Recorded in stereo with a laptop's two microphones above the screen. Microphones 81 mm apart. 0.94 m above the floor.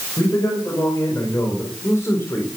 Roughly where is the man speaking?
Left.